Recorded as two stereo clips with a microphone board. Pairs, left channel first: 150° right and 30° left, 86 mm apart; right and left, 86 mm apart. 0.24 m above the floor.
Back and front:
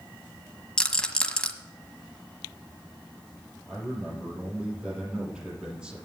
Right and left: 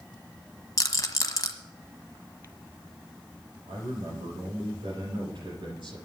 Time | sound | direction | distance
0.8 | a rattle | 75° right | 1.3 m
3.7 | a man speaking | 110° left | 6 m